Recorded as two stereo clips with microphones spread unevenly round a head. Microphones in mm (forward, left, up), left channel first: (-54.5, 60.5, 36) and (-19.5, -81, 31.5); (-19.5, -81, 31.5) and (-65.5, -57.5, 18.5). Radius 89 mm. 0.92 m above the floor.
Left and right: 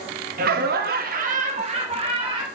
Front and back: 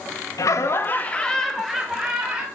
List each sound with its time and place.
0.4 s laughter: 50° right, 1.0 m; by 2.4 s 130° right, 2 m